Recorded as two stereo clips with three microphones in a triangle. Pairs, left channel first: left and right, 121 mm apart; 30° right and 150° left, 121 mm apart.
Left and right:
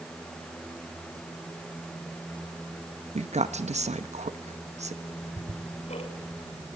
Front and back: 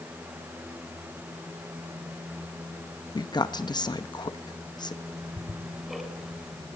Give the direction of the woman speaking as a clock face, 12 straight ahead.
3 o'clock.